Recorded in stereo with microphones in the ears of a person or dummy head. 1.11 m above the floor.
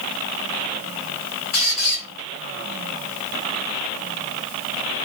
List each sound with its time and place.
1.5 s a squeak: 50° left (ahead or behind), 1.3 m